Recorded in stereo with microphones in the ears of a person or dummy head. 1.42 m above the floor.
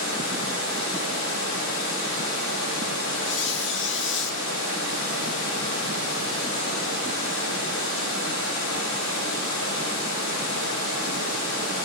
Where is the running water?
75° left (ahead or behind), 5 m.